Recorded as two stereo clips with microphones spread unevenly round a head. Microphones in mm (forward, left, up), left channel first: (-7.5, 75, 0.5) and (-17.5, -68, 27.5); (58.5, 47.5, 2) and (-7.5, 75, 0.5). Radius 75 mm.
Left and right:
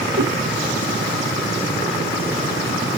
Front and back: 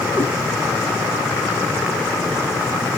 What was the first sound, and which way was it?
A cat meowing, 115° right.